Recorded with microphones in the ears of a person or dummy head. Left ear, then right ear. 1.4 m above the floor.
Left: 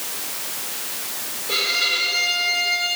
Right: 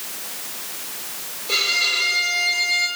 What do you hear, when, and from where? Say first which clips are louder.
1.5 s a violin: right 1 dB; 15° right (ahead or behind), 6 m